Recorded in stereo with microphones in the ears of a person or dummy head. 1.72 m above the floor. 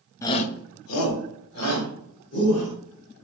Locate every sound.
0.2 s a shout: 15° left (ahead or behind), 0.5 m; by 2.7 s 80° left, 3 m